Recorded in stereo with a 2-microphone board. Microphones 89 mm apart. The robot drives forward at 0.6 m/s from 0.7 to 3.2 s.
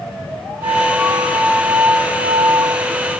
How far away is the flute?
About 5 m.